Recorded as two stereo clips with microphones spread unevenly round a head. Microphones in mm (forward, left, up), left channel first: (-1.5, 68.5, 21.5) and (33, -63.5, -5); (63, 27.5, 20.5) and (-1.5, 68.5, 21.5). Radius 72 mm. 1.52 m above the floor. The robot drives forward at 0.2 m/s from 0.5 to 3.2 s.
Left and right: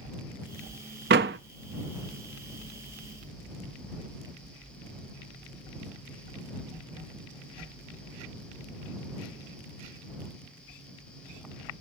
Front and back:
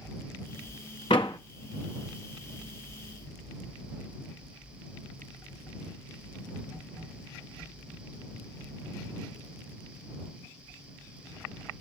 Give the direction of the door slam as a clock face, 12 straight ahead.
3 o'clock.